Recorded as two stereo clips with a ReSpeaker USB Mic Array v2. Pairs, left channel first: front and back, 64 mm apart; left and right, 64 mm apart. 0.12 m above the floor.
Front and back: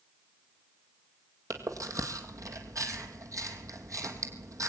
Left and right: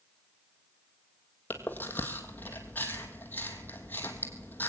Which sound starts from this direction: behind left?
Chewing, at 1.5 s.